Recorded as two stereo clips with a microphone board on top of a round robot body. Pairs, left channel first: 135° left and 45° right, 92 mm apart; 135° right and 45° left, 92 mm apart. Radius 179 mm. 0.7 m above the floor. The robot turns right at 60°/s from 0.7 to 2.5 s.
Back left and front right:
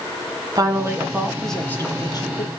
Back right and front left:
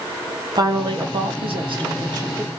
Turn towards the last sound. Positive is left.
turn(degrees=110)